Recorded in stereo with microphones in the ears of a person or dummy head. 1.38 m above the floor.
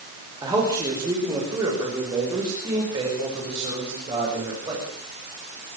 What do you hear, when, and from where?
0.4 s a man speaking: 15° right (ahead or behind), 6 m; by 4.9 s 20° right (ahead or behind), 8 m